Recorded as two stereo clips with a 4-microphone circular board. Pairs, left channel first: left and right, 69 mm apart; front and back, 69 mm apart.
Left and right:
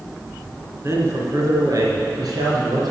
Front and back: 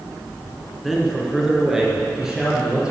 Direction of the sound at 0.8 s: 90° right.